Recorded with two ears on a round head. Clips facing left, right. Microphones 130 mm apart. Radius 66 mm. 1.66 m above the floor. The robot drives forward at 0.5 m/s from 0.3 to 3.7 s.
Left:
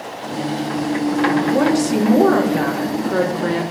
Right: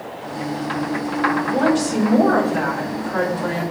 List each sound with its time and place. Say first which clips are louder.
1.4 s a woman speaking: left 2 dB; 80° left, 4.5 m